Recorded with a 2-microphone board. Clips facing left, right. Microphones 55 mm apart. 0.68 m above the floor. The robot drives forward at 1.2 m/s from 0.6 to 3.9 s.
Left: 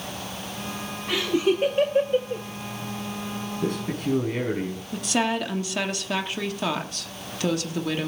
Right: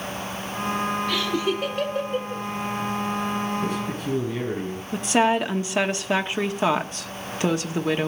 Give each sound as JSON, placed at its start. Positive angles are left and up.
{"t": 1.1, "sound": "laughter", "side_deg": 20, "distance_m": 1.8}
{"t": 3.6, "sound": "a man speaking", "side_deg": 60, "distance_m": 4.5}
{"t": 4.9, "sound": "a woman speaking", "side_deg": -25, "distance_m": 1.3}